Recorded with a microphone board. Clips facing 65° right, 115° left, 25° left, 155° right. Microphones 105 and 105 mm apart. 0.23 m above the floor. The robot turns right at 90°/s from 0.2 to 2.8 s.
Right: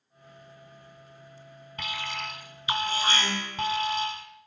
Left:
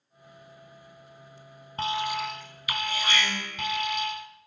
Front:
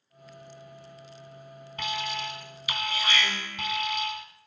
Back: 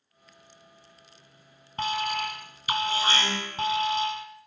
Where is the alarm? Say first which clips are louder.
Left 7 dB, back 5 dB; 155° left, 2 m; by 4.3 s 110° right, 2 m.